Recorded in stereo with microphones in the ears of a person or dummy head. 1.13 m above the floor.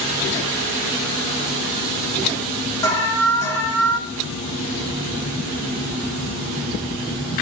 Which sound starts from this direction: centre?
An alarm, at 2.8 s.